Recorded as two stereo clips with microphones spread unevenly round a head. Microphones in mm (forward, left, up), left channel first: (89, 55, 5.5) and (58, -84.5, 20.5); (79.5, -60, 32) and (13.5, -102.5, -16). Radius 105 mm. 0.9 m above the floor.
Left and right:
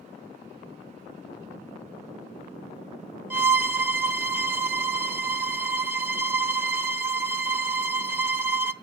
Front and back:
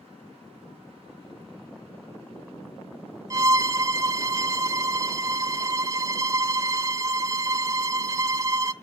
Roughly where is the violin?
Ahead right.